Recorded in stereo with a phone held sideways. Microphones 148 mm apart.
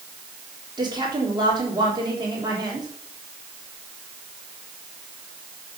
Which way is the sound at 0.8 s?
30° right (ahead or behind).